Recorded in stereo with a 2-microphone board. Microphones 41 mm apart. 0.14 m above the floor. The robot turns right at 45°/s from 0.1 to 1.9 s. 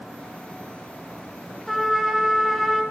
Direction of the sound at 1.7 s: 5° left (ahead or behind).